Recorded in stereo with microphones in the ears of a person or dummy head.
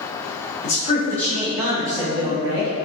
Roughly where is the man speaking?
Left.